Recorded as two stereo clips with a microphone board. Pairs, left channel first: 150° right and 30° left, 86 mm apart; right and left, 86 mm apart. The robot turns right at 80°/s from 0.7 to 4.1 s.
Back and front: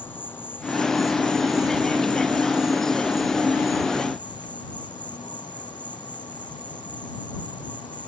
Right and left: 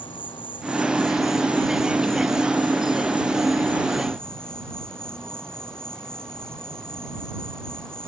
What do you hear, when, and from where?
0.0 s an insect: 85° right; by 8.1 s 170° right